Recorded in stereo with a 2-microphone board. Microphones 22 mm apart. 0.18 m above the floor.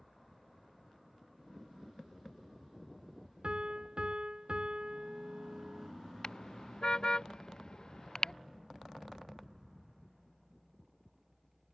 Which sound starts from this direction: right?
A piano, at 3.4 s.